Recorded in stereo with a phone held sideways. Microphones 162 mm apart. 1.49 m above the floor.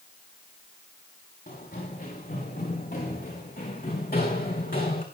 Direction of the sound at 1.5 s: 70° left (ahead or behind).